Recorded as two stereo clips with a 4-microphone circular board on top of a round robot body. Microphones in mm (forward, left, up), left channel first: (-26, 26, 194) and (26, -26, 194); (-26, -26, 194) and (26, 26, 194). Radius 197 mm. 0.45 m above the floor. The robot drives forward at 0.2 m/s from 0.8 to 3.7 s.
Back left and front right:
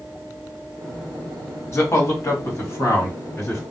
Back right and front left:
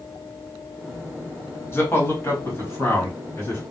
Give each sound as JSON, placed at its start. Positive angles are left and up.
{"t": 1.7, "sound": "a man speaking", "azimuth_deg": 175, "distance_m": 1.7}